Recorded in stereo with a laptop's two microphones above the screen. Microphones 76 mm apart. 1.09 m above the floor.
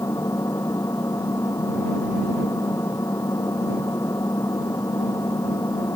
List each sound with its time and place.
0.0 s an engine running: 45° left (ahead or behind)